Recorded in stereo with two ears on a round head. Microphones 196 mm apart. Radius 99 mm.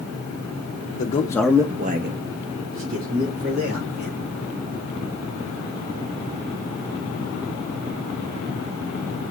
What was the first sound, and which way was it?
A man speaking, 35° left (ahead or behind).